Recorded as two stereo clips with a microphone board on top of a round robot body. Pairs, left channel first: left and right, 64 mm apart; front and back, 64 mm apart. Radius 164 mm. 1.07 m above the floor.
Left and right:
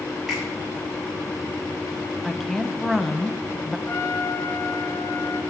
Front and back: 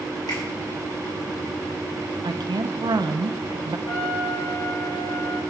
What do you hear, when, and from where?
0.3 s a finger snap: 10° right, 6.5 m
2.2 s a woman speaking: straight behind, 0.6 m
3.9 s a trumpet: 35° left, 3.5 m